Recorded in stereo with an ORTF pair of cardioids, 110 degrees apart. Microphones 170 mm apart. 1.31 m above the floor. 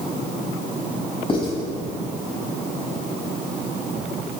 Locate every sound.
1.3 s writing: 30° left, 6.5 m